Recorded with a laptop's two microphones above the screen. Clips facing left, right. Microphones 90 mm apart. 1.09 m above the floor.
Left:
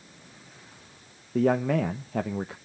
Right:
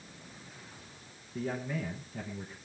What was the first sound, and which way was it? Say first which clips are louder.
A man speaking: left 12 dB; 75° left (ahead or behind).